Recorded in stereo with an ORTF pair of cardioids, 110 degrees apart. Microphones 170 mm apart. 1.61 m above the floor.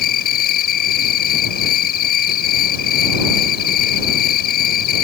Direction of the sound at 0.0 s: 65° left.